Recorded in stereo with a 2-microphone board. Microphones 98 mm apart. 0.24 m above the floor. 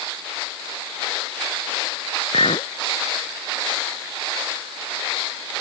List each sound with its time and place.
2.3 s a clink: 70° left (ahead or behind)